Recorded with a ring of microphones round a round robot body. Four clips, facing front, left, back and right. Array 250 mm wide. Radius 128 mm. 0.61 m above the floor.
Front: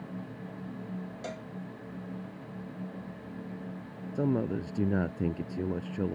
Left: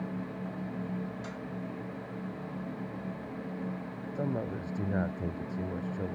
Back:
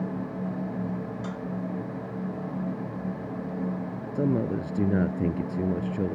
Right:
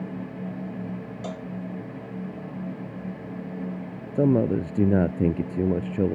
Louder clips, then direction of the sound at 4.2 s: Right 14 dB, back 3 dB; 100° right.